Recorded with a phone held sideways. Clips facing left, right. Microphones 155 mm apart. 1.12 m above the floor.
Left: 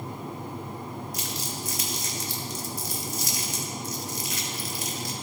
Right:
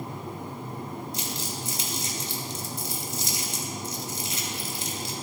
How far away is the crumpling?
About 1.9 m.